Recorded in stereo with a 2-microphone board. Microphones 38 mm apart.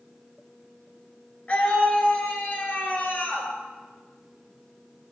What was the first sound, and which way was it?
A scream, 40° left (ahead or behind).